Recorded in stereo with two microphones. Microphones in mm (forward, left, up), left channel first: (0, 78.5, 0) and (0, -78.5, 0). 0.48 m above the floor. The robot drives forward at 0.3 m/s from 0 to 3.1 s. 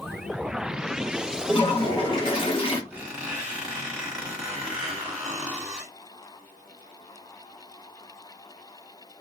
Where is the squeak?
10° right (ahead or behind), 1.5 m; by 5.9 s 5° right (ahead or behind), 1.6 m.